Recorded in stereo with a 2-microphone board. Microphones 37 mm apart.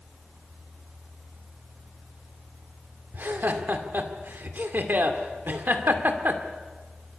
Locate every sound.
3.1 s laughter: 55° right (ahead or behind), 2 m